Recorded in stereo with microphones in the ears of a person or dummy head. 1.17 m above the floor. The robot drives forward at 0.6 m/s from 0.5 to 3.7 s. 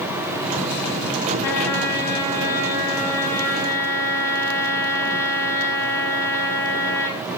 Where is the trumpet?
15° left (ahead or behind), 7 m.